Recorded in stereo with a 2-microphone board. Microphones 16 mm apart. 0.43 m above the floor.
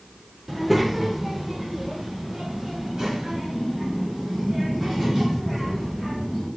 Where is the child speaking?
10° right (ahead or behind), 0.7 m; by 6.5 s 45° right (ahead or behind), 4 m.